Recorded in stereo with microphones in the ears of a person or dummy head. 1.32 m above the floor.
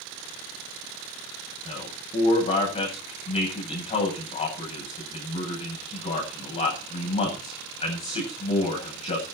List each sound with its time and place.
1.6 s a man speaking: 30° left (ahead or behind), 9.5 m